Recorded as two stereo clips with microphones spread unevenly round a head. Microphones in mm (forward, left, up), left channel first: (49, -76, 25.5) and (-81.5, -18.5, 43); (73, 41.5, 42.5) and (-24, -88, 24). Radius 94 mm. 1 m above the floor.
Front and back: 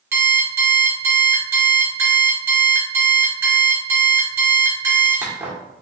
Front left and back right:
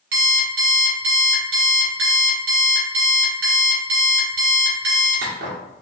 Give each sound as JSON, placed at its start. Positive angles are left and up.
{"t": 0.1, "sound": "an alarm clock", "azimuth_deg": -130, "distance_m": 1.8}